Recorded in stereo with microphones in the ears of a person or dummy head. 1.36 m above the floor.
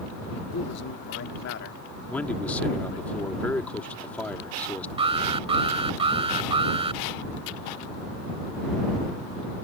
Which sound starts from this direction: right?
An alarm, at 5.0 s.